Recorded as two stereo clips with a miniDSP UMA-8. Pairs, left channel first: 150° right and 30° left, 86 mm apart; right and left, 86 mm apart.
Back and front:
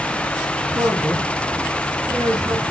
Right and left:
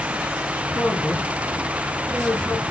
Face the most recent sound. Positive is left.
turn(degrees=-10)